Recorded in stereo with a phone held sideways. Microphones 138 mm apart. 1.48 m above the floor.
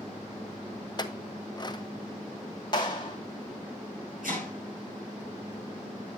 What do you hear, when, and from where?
1.0 s a clink: 30° left (ahead or behind), 0.6 m
2.7 s a clap: 30° left (ahead or behind), 2 m
4.2 s chopping: 80° right, 7.5 m